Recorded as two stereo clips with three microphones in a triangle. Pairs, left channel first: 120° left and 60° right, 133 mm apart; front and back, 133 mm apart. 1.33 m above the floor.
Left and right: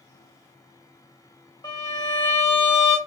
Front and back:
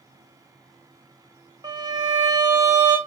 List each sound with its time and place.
1.6 s a violin: 145° left, 1.3 m